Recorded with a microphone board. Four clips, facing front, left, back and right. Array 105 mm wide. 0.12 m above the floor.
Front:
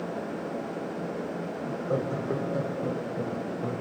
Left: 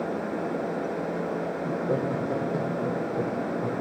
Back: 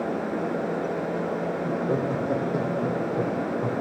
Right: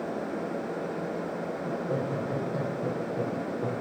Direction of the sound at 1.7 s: 155° left.